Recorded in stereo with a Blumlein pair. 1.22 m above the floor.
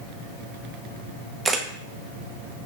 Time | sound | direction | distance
1.4 | a camera shutter | 10° right | 0.7 m